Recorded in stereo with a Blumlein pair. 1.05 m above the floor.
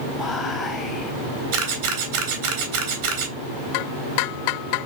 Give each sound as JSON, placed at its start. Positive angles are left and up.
{"t": 0.2, "sound": "whispering", "azimuth_deg": 15, "distance_m": 0.8}
{"t": 1.5, "sound": "a camera shutter", "azimuth_deg": -50, "distance_m": 1.3}